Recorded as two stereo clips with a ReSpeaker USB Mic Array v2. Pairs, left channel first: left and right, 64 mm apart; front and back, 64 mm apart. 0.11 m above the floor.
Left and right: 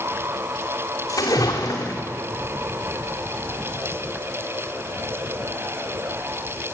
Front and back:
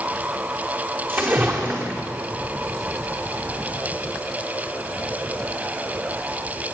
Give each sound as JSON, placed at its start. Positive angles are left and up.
{"t": 1.1, "sound": "a splash", "azimuth_deg": 120, "distance_m": 2.5}